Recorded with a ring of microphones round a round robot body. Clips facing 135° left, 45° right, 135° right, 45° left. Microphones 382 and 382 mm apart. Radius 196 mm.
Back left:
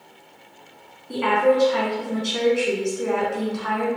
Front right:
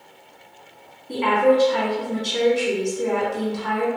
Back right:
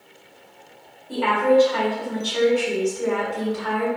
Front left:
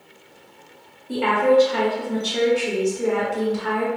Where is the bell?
I don't hear a bell.